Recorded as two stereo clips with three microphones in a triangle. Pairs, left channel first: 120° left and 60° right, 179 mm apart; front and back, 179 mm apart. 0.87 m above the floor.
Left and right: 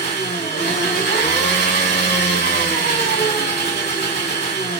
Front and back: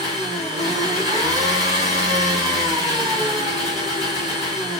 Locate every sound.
0.0 s an engine running: 110° left, 2.5 m